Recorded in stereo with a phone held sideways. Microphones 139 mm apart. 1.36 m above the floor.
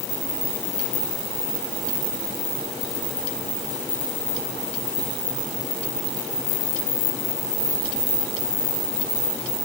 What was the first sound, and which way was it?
Only background noise.